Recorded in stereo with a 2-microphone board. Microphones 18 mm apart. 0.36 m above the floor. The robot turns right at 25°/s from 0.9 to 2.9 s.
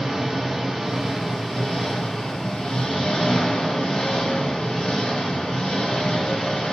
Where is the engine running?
5° right, 1.9 m; by 6.7 s 45° left, 1.9 m.